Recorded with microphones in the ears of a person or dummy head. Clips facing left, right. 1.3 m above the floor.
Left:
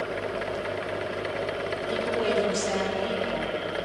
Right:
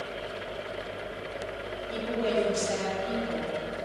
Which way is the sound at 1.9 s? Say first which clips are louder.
Left 2 dB; 85° left.